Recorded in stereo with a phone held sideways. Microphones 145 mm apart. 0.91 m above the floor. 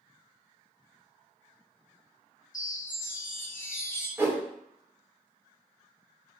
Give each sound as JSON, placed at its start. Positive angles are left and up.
{"t": 2.5, "sound": "a chime", "side_deg": 65, "distance_m": 0.6}
{"t": 4.2, "sound": "a whoosh", "side_deg": -15, "distance_m": 0.5}